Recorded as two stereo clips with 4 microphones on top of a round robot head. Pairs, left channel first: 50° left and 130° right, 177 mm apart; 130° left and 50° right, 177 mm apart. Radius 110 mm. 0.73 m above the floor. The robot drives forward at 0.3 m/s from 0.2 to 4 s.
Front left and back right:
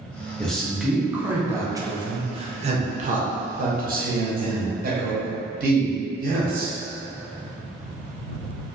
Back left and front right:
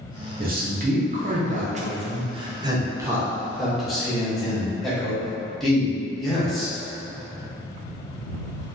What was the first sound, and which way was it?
A man speaking, 35° right.